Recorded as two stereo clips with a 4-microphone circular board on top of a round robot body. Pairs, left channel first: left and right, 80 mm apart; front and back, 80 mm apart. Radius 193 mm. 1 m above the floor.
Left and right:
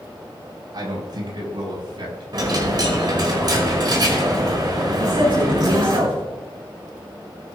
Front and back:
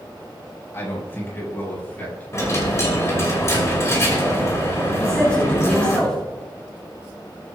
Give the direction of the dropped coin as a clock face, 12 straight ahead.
2 o'clock.